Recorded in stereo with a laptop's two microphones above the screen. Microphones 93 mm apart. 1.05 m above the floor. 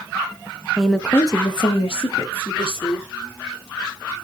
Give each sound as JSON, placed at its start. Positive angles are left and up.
{"t": 0.8, "sound": "a woman speaking", "side_deg": -5, "distance_m": 0.9}